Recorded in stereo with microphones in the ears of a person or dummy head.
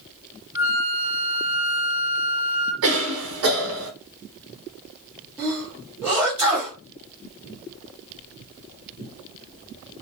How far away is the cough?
About 1.1 m.